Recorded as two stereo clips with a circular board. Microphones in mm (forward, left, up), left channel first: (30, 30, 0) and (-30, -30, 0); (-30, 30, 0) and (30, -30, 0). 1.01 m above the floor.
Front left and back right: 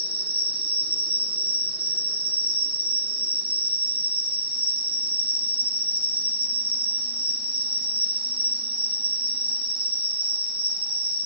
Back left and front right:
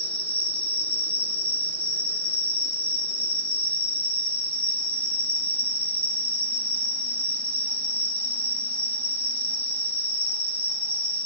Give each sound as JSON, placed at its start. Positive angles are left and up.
{"t": 0.0, "sound": "an insect", "azimuth_deg": -155, "distance_m": 2.0}